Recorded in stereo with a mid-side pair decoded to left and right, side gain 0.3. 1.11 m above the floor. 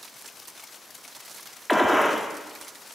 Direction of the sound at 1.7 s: 5° left.